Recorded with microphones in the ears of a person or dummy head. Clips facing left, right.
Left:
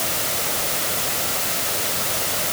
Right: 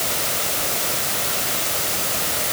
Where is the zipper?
No zipper in this recording.